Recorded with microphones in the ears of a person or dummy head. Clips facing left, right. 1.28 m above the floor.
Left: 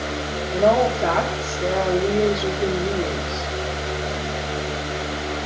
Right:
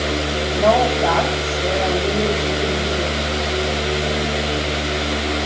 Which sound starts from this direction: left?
A woman speaking, at 0.5 s.